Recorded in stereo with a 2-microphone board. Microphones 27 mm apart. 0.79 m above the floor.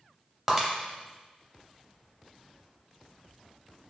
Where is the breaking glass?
10° right (ahead or behind), 0.6 m.